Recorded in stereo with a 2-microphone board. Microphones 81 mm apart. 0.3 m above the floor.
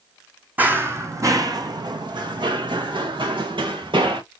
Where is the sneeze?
No sneeze in this recording.